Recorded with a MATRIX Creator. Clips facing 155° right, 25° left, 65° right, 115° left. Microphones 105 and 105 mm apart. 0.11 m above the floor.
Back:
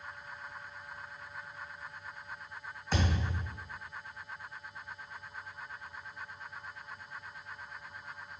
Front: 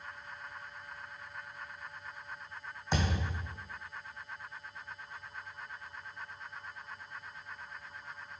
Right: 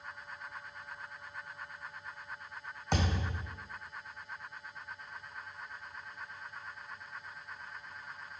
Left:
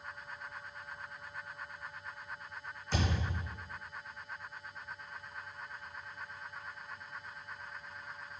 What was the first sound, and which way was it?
A thud, 50° right.